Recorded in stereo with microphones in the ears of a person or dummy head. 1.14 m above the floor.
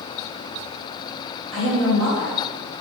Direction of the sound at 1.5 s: 60° right (ahead or behind).